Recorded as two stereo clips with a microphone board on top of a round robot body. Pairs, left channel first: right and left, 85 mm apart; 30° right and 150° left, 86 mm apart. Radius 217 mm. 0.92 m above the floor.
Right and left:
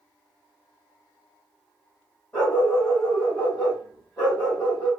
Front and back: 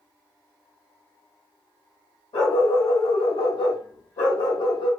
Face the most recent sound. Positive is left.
turn(degrees=-10)